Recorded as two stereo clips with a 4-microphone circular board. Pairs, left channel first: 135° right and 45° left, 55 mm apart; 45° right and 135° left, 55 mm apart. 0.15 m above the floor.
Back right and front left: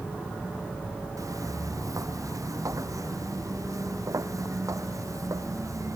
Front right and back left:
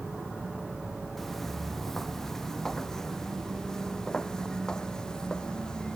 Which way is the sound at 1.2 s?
40° left.